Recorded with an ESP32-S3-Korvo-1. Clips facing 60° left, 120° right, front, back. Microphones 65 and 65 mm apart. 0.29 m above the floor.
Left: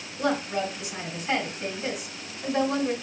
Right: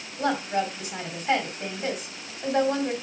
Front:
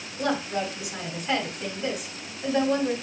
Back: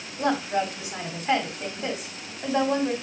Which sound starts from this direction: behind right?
A woman speaking, at 0.2 s.